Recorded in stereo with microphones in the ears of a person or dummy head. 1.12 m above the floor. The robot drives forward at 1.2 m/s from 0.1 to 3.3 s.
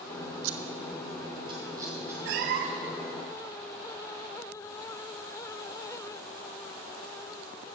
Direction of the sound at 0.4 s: 85° right.